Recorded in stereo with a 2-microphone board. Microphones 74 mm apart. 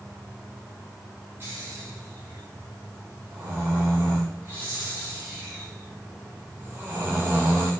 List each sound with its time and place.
1.4 s snoring: 30° right (ahead or behind), 8 m